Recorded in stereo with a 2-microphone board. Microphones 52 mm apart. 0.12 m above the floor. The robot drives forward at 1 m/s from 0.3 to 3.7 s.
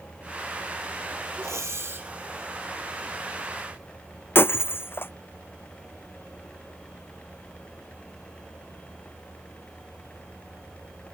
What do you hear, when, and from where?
1.4 s breathing: 75° right (ahead or behind); by 2.1 s 45° right (ahead or behind)
4.3 s breaking glass: 45° left (ahead or behind)